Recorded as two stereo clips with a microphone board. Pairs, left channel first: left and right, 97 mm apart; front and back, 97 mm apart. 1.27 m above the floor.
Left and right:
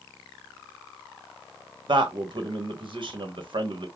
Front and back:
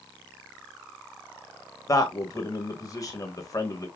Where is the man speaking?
55° right, 1.1 m.